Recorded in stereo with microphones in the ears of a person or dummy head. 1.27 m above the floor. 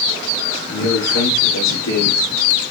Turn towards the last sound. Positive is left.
turn(degrees=85)